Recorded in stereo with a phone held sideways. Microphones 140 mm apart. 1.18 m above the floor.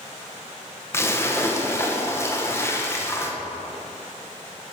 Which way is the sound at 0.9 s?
20° left (ahead or behind).